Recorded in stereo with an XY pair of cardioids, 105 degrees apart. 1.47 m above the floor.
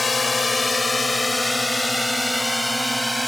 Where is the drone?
25° left; by 3.3 s straight ahead.